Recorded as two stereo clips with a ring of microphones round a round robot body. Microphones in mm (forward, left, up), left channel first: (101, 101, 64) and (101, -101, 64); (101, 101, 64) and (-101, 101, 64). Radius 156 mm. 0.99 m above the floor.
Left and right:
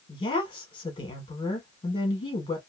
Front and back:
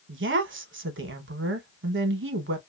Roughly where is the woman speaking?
Behind.